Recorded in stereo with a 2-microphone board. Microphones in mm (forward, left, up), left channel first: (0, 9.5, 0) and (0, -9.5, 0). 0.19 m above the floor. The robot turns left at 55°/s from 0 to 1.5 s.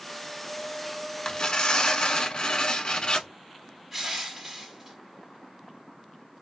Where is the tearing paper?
30° left (ahead or behind), 0.6 m; by 3.3 s 40° left (ahead or behind), 0.6 m.